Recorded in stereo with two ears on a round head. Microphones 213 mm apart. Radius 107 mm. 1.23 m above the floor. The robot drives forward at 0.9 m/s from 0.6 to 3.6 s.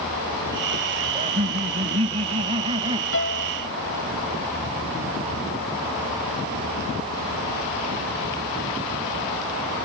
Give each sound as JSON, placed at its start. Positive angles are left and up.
{"t": 1.1, "sound": "laughter", "side_deg": -30}
{"t": 3.1, "sound": "a piano", "side_deg": 55}